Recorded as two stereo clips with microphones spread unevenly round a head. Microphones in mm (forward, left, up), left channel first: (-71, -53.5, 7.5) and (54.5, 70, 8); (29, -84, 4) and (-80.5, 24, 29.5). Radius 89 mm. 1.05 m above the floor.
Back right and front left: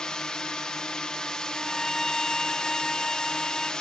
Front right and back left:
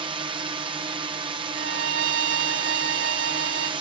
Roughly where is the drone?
Behind left.